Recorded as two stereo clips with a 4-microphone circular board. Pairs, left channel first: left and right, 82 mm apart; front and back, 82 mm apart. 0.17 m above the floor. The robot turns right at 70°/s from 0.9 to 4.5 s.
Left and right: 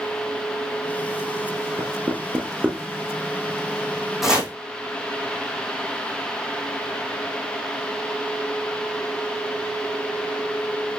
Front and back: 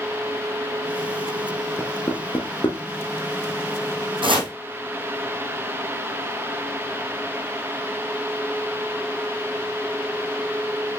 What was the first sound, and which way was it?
Knocking, 65° right.